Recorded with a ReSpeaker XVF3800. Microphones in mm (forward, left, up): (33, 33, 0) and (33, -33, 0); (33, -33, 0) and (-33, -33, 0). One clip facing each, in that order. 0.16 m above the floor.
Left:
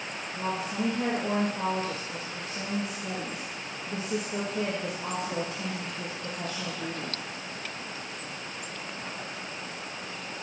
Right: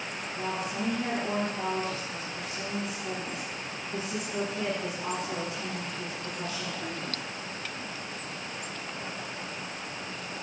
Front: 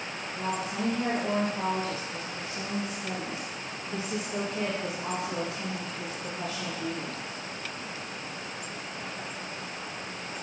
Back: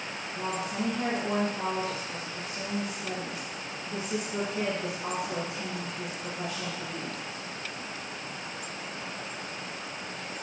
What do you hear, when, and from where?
0.3 s a woman speaking: 110° left, 3 m